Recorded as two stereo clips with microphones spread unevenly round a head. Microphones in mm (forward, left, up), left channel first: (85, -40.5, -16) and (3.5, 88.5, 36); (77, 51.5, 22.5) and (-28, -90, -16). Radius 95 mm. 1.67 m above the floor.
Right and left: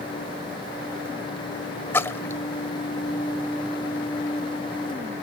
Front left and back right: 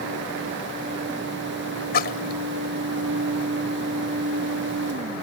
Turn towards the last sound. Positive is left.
turn(degrees=20)